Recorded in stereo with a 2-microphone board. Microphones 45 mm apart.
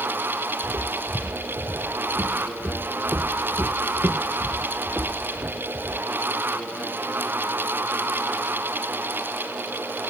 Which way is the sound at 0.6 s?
85° right.